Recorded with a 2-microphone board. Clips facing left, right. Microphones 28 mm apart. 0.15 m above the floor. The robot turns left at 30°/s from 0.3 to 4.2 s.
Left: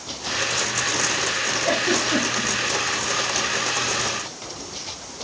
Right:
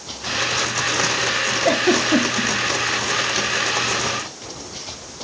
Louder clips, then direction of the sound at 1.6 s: Right 5 dB; 70° right (ahead or behind).